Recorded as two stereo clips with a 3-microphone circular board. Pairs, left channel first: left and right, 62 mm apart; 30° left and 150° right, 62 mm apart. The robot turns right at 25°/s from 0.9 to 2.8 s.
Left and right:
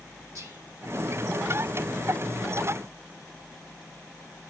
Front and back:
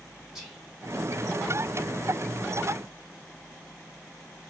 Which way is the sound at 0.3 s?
65° right.